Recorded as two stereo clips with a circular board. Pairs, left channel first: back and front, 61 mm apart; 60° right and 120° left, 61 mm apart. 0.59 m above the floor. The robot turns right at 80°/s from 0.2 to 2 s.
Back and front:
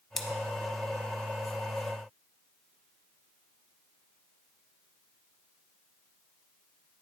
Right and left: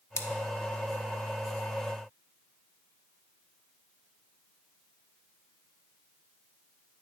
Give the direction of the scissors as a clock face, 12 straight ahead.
3 o'clock.